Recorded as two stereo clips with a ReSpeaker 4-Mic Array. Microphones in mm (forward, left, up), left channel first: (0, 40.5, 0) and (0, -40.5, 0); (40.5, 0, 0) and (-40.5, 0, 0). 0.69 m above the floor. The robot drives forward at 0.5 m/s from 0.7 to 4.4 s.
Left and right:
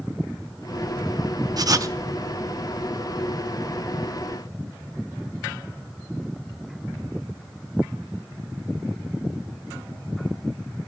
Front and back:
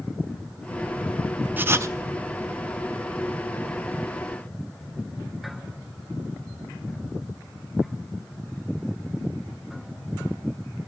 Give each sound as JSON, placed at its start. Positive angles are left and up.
{"t": 1.6, "sound": "writing", "azimuth_deg": -115, "distance_m": 0.6}